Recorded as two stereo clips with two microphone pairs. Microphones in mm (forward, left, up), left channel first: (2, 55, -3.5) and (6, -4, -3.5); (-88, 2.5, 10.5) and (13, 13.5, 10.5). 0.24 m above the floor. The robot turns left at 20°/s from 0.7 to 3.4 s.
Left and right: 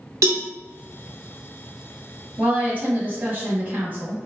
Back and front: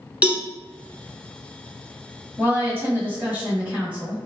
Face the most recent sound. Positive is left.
turn(degrees=-60)